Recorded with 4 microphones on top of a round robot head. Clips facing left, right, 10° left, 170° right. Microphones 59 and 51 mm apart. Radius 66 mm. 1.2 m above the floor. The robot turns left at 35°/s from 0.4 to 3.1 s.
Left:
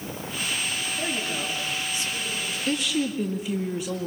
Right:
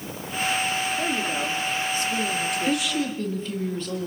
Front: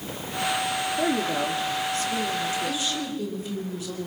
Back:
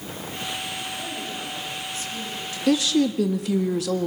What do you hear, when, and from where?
1.0 s a woman speaking: 5° right, 3.5 m; by 3.2 s 80° right, 3.5 m
2.7 s a woman speaking: 175° right, 1.7 m; by 4.1 s 170° left, 1.7 m